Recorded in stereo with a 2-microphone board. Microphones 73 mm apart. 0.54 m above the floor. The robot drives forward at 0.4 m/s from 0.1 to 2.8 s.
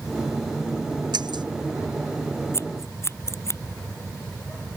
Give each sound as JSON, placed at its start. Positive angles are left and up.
{"t": 1.1, "sound": "breaking glass", "side_deg": -80}
{"t": 2.5, "sound": "scissors", "side_deg": 40}